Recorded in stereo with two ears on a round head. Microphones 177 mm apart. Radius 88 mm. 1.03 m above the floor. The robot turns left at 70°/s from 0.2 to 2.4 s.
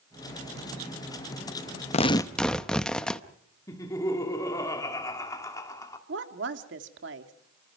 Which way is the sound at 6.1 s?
70° right (ahead or behind).